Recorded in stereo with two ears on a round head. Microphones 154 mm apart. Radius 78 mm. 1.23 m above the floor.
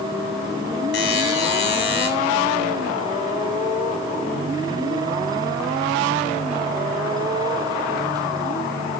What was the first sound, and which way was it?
A buzzer, 60° left (ahead or behind).